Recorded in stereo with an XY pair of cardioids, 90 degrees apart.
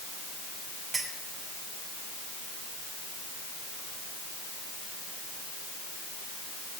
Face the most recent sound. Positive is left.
turn(degrees=-40)